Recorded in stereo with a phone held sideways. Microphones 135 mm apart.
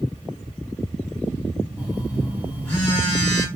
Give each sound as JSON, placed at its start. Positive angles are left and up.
{"t": 1.8, "sound": "a phone buzzing", "side_deg": 15, "distance_m": 1.7}